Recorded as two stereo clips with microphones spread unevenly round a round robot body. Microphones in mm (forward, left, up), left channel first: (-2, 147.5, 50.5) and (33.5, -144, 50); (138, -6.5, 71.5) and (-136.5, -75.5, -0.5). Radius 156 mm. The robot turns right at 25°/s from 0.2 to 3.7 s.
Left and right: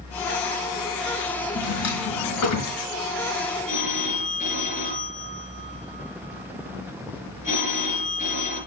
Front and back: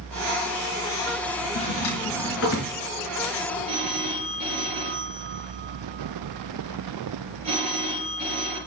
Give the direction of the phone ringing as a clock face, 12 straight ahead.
7 o'clock.